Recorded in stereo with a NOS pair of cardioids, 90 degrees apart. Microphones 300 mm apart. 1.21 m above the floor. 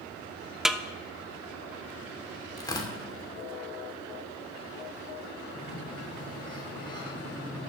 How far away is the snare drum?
About 0.6 m.